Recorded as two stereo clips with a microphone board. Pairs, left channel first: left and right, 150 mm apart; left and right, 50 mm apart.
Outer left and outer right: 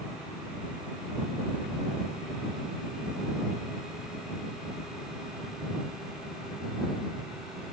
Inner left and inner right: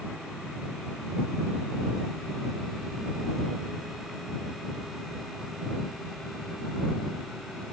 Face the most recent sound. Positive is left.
No sound to turn to.